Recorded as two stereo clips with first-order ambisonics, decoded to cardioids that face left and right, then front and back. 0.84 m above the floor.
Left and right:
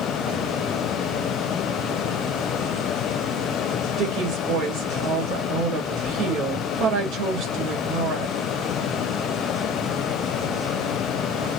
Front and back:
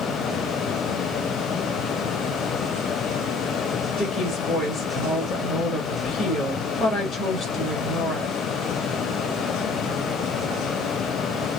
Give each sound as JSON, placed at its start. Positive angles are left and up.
{"t": 4.0, "sound": "a woman speaking", "azimuth_deg": -70, "distance_m": 1.4}